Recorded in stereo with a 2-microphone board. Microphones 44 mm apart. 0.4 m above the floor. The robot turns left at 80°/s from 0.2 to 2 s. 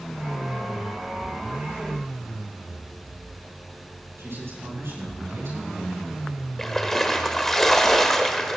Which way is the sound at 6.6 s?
10° left (ahead or behind).